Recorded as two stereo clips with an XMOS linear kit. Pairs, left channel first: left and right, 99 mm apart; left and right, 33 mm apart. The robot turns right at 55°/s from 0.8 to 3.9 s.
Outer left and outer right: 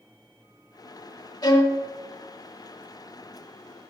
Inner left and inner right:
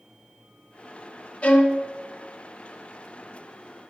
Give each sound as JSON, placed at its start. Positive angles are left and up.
{"t": 1.4, "sound": "a violin", "side_deg": 45, "distance_m": 1.0}